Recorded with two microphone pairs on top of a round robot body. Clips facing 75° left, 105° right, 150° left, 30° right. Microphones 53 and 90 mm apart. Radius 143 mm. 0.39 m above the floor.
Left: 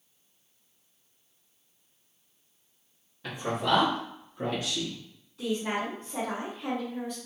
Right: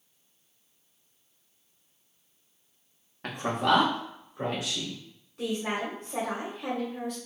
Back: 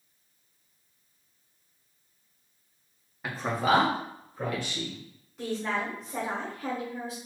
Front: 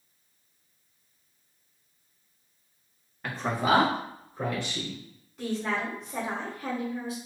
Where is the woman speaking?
115° right, 1.9 m.